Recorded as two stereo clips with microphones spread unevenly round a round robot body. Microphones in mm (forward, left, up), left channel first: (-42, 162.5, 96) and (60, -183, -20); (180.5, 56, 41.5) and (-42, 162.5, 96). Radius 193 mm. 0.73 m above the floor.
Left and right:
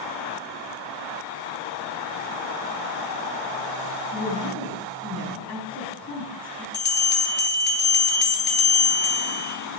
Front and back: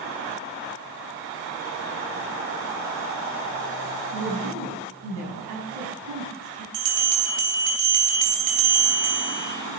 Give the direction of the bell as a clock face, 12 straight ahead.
6 o'clock.